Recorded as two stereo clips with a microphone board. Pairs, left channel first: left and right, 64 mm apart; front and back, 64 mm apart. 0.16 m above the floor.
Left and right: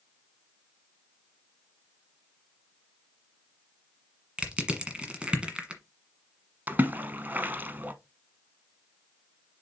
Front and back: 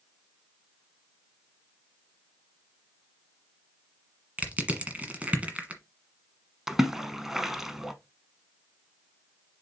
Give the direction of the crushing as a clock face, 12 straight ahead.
5 o'clock.